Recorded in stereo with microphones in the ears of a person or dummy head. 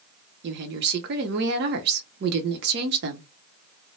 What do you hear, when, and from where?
0.4 s a woman speaking: 65° right (ahead or behind), 0.9 m